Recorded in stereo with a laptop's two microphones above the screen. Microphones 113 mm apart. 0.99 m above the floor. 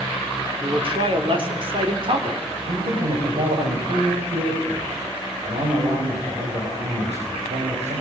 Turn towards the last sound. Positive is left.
turn(degrees=-75)  # may be behind; listen again after turning